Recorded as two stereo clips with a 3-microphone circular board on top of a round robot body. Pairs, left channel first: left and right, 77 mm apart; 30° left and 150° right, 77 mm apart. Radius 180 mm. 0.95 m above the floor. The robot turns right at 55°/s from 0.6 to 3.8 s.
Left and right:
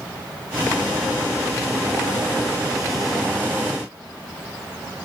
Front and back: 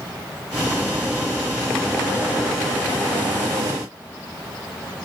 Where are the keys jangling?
I don't hear keys jangling.